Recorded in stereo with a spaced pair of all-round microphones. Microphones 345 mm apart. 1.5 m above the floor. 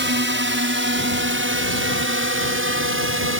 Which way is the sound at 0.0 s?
35° right (ahead or behind).